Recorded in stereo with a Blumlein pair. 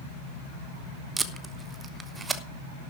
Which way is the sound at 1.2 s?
15° right.